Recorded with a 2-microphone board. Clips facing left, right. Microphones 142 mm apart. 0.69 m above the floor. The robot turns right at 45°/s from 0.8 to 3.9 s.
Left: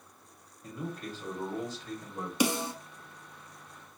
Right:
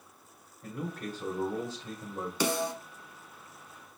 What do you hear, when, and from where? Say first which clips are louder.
0.6 s a man speaking: right 1 dB; 80° right, 1.9 m; by 2.3 s 15° right, 1.9 m
2.4 s a snare drum: left 1 dB; 15° left (ahead or behind), 1.2 m; by 2.7 s 30° left (ahead or behind), 1.2 m